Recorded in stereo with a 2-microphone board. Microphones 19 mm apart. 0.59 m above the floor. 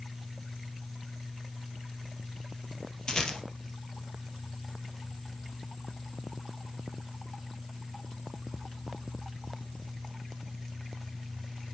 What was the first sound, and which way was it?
A rattle, 40° left (ahead or behind).